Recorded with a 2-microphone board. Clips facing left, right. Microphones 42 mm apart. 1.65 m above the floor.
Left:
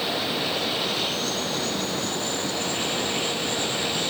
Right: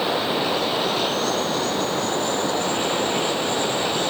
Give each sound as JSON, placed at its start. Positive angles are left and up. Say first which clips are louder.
{"t": 0.0, "sound": "running water", "louder": "right 4 dB", "side_deg": -30}